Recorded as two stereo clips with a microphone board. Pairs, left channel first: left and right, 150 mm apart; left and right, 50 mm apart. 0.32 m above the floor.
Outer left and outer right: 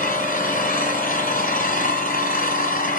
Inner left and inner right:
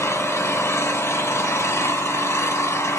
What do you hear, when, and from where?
0.0 s an engine running: 65° left (ahead or behind), 1.3 m